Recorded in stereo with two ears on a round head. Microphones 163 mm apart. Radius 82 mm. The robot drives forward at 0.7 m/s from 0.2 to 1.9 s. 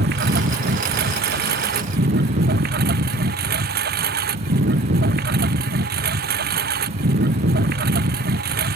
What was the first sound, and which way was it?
A lawn mower, 60° right (ahead or behind).